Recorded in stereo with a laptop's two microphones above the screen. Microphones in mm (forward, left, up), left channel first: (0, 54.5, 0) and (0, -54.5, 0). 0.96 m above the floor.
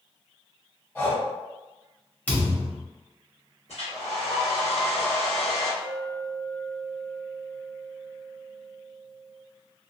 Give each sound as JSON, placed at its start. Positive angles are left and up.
{"t": 0.9, "sound": "breathing", "side_deg": 20, "distance_m": 1.1}
{"t": 2.3, "sound": "a thud", "side_deg": 15, "distance_m": 1.0}
{"t": 3.7, "sound": "a hair dryer", "side_deg": 75, "distance_m": 1.3}
{"t": 5.8, "sound": "a clink", "side_deg": 30, "distance_m": 1.0}